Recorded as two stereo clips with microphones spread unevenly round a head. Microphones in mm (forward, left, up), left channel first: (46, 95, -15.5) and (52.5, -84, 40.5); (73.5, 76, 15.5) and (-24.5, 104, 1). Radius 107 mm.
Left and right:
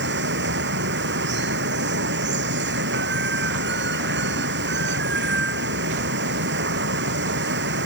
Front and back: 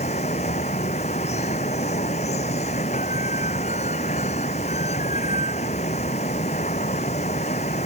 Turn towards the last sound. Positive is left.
turn(degrees=-70)